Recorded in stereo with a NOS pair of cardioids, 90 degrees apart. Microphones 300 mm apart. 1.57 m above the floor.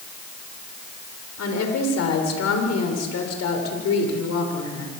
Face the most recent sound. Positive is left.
turn(degrees=60)